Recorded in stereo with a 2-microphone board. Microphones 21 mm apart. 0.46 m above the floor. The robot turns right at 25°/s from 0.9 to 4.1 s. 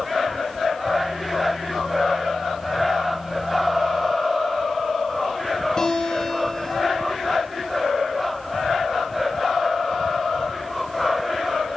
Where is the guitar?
35° left (ahead or behind), 6 m.